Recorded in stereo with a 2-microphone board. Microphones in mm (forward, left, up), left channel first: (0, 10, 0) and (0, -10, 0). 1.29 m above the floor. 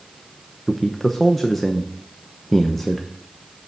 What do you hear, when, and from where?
0.7 s a man speaking: 5° left (ahead or behind), 0.9 m